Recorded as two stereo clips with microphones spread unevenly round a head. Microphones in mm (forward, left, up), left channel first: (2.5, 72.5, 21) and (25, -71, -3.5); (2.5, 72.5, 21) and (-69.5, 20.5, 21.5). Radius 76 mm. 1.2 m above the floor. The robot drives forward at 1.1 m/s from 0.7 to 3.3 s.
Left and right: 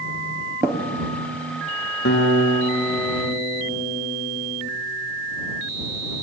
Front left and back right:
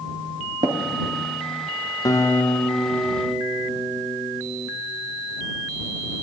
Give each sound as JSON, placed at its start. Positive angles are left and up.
{"t": 0.6, "sound": "tapping", "azimuth_deg": -160, "distance_m": 0.9}
{"t": 2.0, "sound": "a guitar", "azimuth_deg": 85, "distance_m": 1.0}